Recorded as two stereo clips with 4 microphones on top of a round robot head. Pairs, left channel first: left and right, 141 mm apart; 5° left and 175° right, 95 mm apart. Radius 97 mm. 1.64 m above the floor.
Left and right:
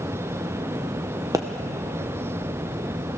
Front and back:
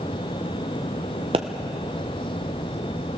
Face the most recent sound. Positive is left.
turn(degrees=-160)